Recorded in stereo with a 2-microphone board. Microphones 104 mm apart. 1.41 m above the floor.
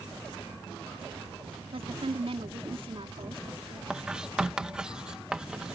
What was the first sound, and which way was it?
A woman speaking, 65° right (ahead or behind).